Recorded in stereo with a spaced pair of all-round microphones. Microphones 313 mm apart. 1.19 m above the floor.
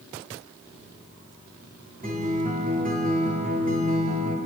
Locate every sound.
2.0 s a guitar: 30° right (ahead or behind), 4 m